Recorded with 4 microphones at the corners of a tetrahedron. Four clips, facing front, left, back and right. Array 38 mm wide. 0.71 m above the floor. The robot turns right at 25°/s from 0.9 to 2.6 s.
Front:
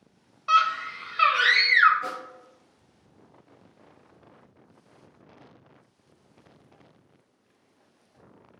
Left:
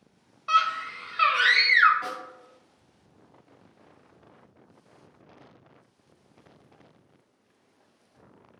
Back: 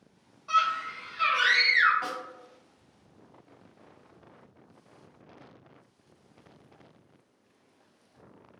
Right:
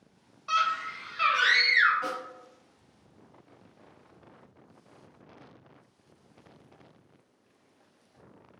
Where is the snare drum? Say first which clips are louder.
Right 1 dB, front 1 dB; 165° left, 1.9 m; by 2.2 s 170° left, 1.9 m.